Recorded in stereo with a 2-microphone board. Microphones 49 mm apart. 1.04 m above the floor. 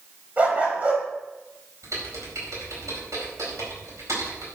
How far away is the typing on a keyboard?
About 4.5 m.